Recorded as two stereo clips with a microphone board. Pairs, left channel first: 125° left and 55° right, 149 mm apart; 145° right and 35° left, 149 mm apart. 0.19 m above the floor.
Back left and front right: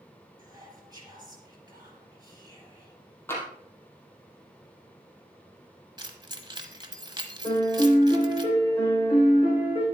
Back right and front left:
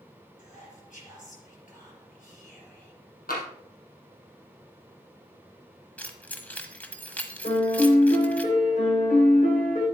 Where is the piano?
175° left, 4 m.